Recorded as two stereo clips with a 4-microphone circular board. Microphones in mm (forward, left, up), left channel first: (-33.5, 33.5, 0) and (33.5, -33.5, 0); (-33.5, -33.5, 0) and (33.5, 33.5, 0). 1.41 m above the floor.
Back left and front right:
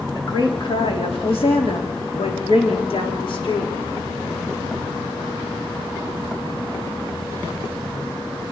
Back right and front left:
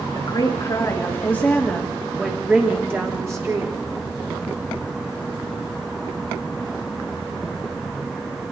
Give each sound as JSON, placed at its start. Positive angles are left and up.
{"t": 0.1, "sound": "a woman speaking", "azimuth_deg": 175, "distance_m": 3.5}